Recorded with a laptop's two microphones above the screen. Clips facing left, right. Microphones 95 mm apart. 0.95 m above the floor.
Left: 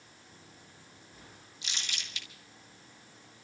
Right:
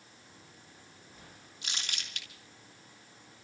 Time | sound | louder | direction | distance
1.6 | crumpling | even | 50° right (ahead or behind) | 2.0 m